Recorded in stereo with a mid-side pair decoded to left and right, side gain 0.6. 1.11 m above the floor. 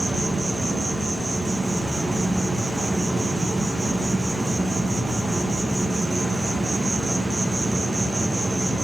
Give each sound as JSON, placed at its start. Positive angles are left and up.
{"t": 0.0, "sound": "an insect", "azimuth_deg": -15, "distance_m": 0.8}